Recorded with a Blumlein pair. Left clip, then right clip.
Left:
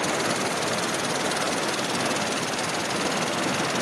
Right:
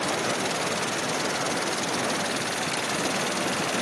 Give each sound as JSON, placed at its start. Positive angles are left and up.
{"t": 0.0, "sound": "running water", "azimuth_deg": 5}